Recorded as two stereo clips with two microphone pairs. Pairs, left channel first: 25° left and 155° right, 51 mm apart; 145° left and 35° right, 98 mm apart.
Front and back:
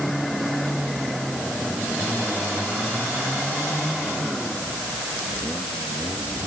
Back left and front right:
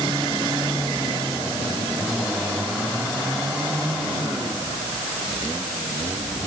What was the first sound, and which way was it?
Only background noise.